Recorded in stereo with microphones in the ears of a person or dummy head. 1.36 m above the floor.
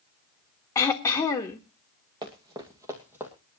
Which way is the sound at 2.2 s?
20° right (ahead or behind).